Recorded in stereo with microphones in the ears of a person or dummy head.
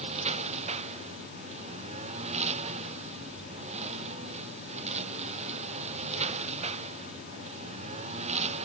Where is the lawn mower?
40° right (ahead or behind).